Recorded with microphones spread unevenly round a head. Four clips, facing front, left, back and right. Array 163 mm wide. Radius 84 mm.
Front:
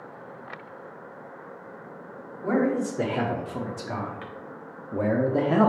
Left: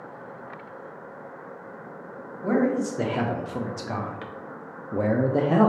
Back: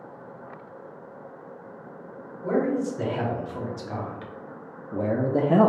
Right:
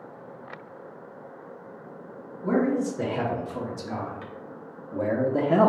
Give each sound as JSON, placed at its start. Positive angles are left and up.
{"t": 2.4, "sound": "a man speaking", "azimuth_deg": 45, "distance_m": 1.6}